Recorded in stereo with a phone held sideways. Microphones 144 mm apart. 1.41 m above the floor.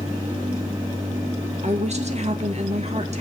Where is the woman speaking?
50° right (ahead or behind), 1.9 m.